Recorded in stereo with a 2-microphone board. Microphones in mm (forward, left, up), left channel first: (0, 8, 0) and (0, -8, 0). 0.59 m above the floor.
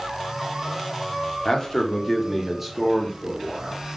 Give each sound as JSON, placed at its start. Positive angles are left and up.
{"t": 1.4, "sound": "a man speaking", "side_deg": 45, "distance_m": 1.0}